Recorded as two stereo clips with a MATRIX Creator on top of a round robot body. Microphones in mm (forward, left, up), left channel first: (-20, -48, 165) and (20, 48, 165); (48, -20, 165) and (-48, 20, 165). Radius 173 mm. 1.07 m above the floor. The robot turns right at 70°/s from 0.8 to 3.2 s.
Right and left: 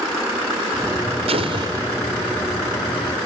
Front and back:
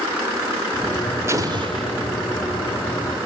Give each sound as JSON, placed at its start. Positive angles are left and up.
{"t": 1.3, "sound": "an explosion", "azimuth_deg": 90, "distance_m": 1.1}